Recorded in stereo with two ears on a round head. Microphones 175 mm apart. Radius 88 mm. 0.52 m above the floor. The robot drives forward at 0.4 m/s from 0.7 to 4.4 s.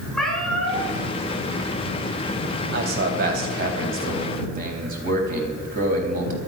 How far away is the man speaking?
About 3.5 m.